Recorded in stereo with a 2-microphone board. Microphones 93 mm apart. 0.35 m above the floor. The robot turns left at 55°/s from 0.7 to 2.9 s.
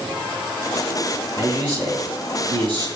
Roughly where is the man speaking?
Ahead right.